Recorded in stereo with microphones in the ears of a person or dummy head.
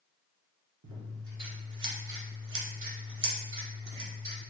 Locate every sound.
0.8 s scissors: 60° right (ahead or behind), 1.2 m